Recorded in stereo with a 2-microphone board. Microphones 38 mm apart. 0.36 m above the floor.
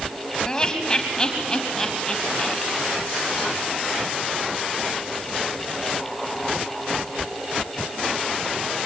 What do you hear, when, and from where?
0.5 s laughter: 20° left (ahead or behind), 3 m